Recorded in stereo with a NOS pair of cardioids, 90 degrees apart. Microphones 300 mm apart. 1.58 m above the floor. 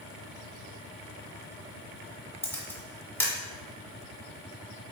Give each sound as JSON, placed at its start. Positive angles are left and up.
{"t": 2.4, "sound": "a camera shutter", "azimuth_deg": 5, "distance_m": 1.0}